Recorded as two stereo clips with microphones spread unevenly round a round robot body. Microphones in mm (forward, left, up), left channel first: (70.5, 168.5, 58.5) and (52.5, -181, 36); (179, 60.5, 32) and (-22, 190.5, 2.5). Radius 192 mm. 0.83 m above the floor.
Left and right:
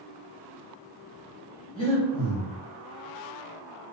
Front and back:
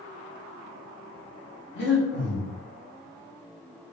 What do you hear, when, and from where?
1.8 s breathing: 10° left, 1.7 m